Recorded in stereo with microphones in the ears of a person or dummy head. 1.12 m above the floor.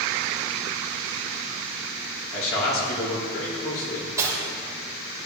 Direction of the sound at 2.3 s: 70° left (ahead or behind).